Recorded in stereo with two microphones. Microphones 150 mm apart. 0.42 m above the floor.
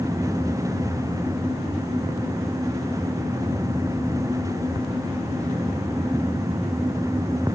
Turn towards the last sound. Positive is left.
No sound to turn to.